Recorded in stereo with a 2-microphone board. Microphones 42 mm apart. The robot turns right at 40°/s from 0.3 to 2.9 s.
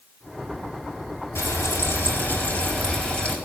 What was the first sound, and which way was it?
Frying, 90° left.